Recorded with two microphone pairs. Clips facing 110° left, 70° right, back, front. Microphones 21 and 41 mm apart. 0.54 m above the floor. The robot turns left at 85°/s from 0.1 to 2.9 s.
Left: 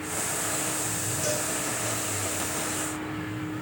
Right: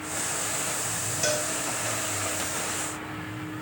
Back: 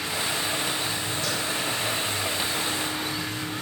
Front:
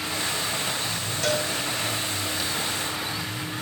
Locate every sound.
1.2 s a cowbell: 25° right, 2 m; by 1.5 s 45° right, 2 m